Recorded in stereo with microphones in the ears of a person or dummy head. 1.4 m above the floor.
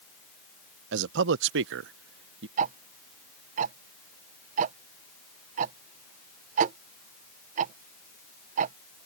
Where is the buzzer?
No buzzer in this recording.